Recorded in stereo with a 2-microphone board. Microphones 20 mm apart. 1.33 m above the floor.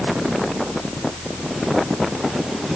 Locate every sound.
Only background noise.